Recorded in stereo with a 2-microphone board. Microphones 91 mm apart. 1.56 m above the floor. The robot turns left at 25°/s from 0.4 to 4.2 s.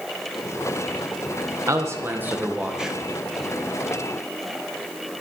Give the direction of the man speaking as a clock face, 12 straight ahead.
5 o'clock.